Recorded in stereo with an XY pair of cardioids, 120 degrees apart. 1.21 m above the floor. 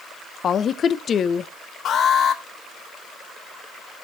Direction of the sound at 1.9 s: 55° left.